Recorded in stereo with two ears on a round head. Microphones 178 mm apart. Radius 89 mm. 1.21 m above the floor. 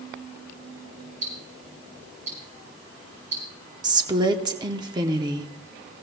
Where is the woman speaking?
20° right (ahead or behind), 0.8 m.